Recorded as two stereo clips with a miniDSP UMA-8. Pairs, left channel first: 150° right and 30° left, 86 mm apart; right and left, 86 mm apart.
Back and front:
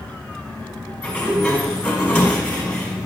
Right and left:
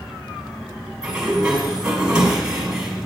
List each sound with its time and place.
1.0 s a sliding door: 155° left, 1.7 m